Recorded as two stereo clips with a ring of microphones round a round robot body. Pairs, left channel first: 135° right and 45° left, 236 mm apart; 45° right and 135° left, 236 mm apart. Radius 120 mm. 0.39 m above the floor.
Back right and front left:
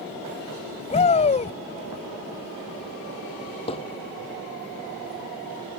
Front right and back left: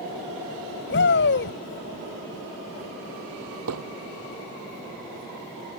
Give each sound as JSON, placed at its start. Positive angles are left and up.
{"t": 0.9, "sound": "a shout", "azimuth_deg": -75}
{"t": 3.7, "sound": "hammering", "azimuth_deg": 160}